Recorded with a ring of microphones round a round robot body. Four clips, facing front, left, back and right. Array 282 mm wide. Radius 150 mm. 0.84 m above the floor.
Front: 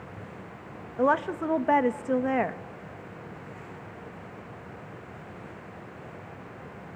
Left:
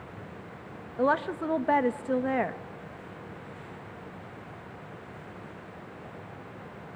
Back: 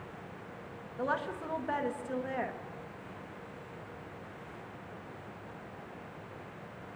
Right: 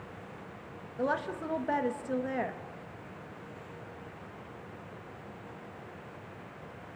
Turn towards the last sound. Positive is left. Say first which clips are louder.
# left 6 dB, front 10 dB
turn(degrees=30)